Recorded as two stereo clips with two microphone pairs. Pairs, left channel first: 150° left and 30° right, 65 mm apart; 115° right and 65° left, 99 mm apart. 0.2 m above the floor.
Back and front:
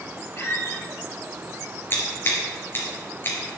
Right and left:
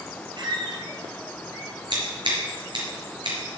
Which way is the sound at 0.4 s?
105° left.